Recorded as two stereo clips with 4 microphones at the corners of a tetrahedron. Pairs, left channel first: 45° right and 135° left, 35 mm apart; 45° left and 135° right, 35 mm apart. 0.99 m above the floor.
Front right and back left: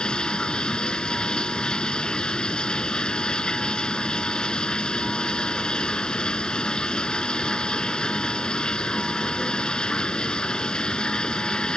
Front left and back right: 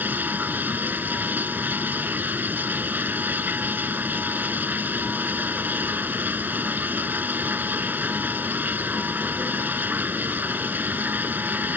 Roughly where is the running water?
Right.